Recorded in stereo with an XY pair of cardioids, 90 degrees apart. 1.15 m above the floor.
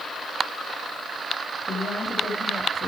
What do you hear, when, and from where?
1.7 s a woman speaking: 35° left, 6 m